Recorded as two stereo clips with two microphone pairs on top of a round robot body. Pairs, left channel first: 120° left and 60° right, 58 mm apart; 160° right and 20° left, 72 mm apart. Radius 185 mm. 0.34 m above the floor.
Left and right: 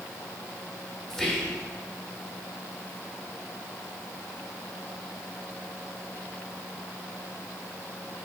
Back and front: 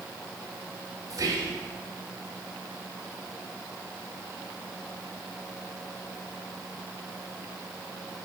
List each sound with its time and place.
1.1 s whispering: 40° left, 1.9 m